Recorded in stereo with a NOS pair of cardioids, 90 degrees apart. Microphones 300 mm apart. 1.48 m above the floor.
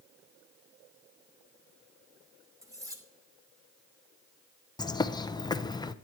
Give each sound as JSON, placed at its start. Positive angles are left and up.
{"t": 2.6, "sound": "cutlery clinking", "azimuth_deg": -10, "distance_m": 2.5}
{"t": 4.8, "sound": "a bird", "azimuth_deg": 15, "distance_m": 0.7}